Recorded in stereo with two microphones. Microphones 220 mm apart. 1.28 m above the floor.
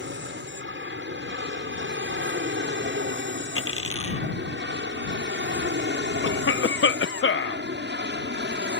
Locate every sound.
0.0 s an aircraft: 60° right (ahead or behind); by 8.8 s 55° right (ahead or behind)
3.6 s a dropped coin: 80° left
6.2 s a cough: 60° left (ahead or behind)